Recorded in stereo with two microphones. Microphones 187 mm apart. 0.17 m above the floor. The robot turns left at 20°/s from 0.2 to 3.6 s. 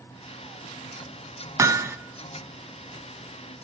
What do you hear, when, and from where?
1.6 s hammering: 15° right (ahead or behind), 0.6 m